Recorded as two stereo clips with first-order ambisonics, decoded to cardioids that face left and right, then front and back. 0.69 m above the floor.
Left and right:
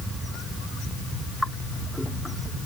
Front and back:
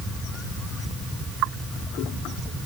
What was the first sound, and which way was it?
Only background noise.